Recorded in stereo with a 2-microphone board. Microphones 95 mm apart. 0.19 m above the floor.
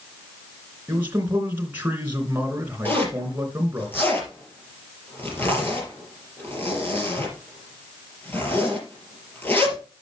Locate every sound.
0.9 s a man speaking: 20° right (ahead or behind), 3 m
2.9 s a zipper: 25° left (ahead or behind), 4 m